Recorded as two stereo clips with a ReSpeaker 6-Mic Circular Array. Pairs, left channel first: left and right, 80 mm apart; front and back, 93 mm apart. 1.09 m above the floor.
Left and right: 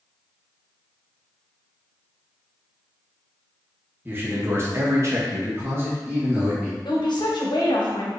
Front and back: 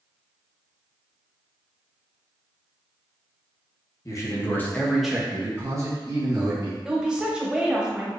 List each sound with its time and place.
4.0 s a man speaking: 35° right, 1.0 m; by 6.8 s 155° right, 1.4 m
6.8 s a woman speaking: 100° left, 0.9 m